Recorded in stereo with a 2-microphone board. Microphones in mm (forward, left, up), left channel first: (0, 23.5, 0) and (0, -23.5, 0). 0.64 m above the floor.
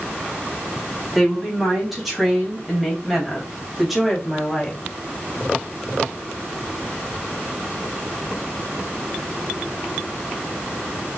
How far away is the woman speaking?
About 4.5 m.